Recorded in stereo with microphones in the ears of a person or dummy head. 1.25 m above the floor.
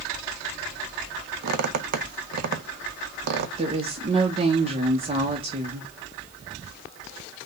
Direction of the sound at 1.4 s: 55° right (ahead or behind).